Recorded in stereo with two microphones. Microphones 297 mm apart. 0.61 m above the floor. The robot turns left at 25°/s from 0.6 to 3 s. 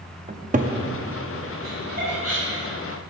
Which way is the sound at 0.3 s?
25° right (ahead or behind).